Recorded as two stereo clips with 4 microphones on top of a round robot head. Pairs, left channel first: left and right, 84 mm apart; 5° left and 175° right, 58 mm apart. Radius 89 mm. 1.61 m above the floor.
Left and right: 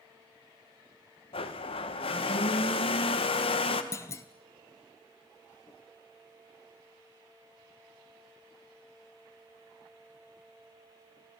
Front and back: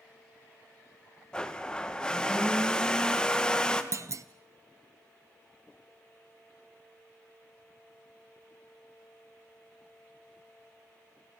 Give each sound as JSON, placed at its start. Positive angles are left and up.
{"t": 1.3, "sound": "a blender", "azimuth_deg": 85, "distance_m": 2.0}
{"t": 3.9, "sound": "a clunk", "azimuth_deg": 150, "distance_m": 1.1}